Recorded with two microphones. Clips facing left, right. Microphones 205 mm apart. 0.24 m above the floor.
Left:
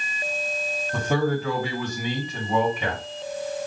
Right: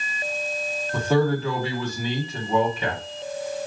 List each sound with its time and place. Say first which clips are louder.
0.9 s a man speaking: right 3 dB; 20° left (ahead or behind), 1.6 m